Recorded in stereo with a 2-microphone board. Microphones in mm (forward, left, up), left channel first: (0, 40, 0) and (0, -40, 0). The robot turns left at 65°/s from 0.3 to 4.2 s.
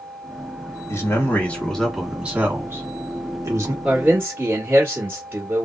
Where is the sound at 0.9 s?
65° left, 1.4 m; by 3.7 s 120° right, 1.4 m.